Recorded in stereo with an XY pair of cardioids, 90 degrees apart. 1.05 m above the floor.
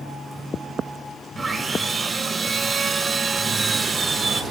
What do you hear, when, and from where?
1.4 s sawing: 40° right, 2.5 m